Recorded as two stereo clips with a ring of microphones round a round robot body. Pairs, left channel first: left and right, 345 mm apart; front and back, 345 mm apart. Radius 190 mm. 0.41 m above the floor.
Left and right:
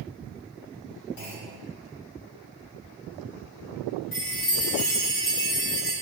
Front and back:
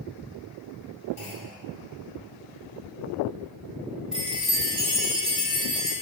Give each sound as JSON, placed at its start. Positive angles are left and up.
{"t": 1.2, "sound": "a clunk", "azimuth_deg": 70, "distance_m": 2.5}
{"t": 4.1, "sound": "a chime", "azimuth_deg": 90, "distance_m": 2.5}